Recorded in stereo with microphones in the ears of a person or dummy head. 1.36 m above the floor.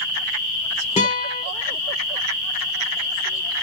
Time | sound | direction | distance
1.0 | a guitar | 30° left (ahead or behind) | 0.7 m